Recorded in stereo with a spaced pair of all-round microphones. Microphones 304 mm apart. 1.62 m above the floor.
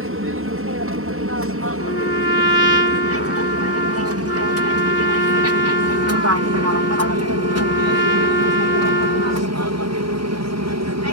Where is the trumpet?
35° left (ahead or behind).